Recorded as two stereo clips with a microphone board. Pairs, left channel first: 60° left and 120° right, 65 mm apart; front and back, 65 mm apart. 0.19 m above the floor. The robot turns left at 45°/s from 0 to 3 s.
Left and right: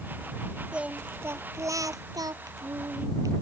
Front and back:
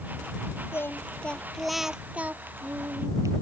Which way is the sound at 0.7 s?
45° right.